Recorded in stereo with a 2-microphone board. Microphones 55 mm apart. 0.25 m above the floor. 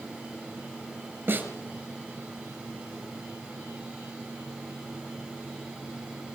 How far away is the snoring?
No snoring in this recording.